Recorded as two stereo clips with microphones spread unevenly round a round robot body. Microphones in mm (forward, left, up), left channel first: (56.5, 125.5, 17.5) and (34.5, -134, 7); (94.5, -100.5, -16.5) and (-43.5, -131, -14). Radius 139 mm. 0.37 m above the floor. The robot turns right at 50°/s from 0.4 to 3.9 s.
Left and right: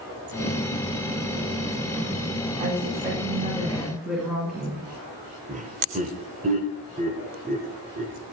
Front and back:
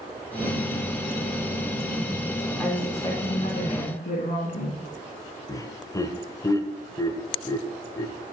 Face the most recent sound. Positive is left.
turn(degrees=-45)